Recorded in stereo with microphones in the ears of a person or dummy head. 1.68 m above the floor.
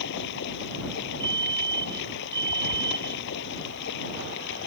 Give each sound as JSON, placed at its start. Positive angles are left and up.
{"t": 0.0, "sound": "running water", "side_deg": 60}
{"t": 1.2, "sound": "a fire alarm", "side_deg": -25}